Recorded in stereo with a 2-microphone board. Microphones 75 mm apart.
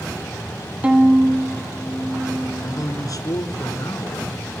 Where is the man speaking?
55° left (ahead or behind), 1.9 m.